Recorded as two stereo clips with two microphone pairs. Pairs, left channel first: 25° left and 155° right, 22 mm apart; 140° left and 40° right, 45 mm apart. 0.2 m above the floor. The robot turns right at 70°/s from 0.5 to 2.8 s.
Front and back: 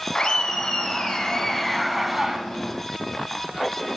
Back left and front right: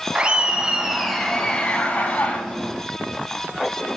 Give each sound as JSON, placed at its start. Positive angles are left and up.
{"t": 0.1, "sound": "laughter", "azimuth_deg": 10, "distance_m": 1.2}